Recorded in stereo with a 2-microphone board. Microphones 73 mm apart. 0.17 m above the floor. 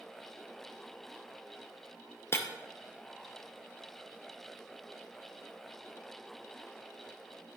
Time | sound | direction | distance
2.3 | breaking glass | 35° left (ahead or behind) | 2 m